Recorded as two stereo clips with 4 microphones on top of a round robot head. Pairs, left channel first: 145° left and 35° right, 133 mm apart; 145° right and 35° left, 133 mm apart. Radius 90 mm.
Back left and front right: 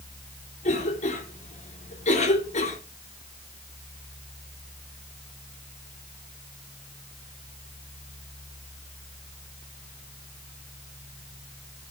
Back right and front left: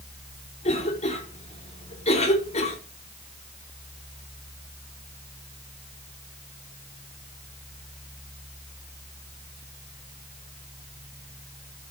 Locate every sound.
0.6 s a cough: 175° left, 3.5 m